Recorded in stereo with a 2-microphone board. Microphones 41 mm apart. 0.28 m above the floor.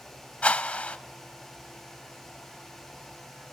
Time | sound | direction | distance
0.4 | a whoosh | 30° left (ahead or behind) | 1.3 m